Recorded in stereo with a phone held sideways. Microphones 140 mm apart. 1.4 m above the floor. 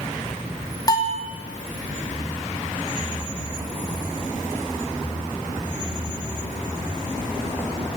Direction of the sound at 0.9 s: 30° left (ahead or behind).